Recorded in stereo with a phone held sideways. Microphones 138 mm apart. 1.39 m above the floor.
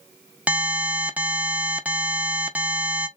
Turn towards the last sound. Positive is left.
turn(degrees=-10)  # may be behind; listen again after turning